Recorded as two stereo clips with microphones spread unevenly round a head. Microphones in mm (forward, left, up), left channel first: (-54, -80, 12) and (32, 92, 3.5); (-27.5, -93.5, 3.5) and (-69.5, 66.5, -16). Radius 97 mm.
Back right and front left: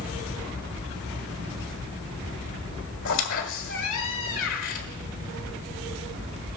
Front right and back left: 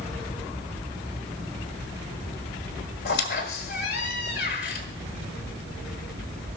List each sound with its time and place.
3.0 s a squeak: 90° right, 1.9 m